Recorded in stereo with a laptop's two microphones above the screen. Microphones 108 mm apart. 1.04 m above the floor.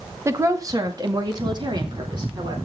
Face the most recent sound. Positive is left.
turn(degrees=-45)  # may be behind; listen again after turning